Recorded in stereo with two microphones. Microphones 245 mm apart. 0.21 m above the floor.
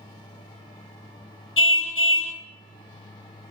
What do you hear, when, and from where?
1.6 s a car horn: 55° left (ahead or behind), 2.5 m